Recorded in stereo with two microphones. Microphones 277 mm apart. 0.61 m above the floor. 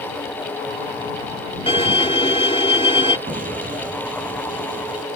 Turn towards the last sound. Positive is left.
turn(degrees=-25)  # may be behind; listen again after turning